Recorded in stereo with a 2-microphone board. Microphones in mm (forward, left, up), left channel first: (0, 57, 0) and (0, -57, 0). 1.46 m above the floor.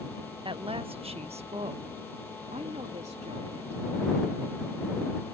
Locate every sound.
0.5 s a woman speaking: 45° right (ahead or behind); by 3.8 s 70° right (ahead or behind)